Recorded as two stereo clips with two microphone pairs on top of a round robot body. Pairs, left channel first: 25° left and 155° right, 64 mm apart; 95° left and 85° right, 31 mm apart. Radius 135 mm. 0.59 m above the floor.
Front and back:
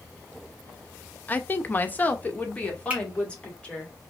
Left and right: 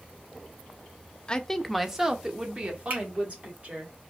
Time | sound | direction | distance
1.3 | a woman speaking | 50° left | 0.9 m
2.9 | a finger snap | 80° right | 2.5 m